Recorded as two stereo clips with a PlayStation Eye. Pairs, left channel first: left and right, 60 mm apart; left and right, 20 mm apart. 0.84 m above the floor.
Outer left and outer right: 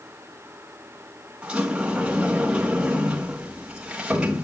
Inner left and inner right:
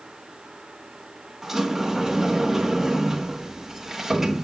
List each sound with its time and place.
1.4 s a sliding door: 15° right (ahead or behind), 2 m